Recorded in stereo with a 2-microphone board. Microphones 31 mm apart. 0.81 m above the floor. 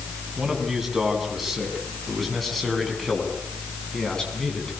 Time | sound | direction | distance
0.4 | a man speaking | 10° right (ahead or behind) | 7.5 m